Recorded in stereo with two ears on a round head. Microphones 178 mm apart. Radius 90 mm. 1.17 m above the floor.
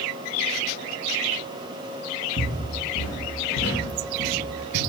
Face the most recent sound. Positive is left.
turn(degrees=65)  # may be behind; listen again after turning